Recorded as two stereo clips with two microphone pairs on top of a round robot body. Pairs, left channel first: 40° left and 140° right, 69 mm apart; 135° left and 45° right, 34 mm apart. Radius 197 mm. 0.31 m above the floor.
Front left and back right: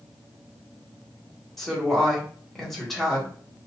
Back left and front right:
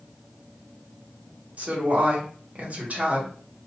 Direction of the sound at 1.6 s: 50° right.